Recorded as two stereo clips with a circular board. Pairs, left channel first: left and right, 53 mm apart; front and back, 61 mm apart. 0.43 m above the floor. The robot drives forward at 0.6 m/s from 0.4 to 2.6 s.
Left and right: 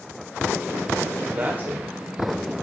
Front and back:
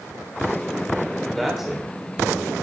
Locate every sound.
1.4 s a man speaking: 90° right, 1.4 m; by 2.5 s 130° right, 1.6 m